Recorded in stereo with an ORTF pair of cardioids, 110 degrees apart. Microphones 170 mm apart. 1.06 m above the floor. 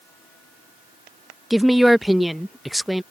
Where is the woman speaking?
Straight ahead.